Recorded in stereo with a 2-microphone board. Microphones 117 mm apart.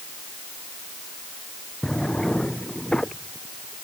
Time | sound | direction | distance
1.8 | a drawer | 5° left (ahead or behind) | ?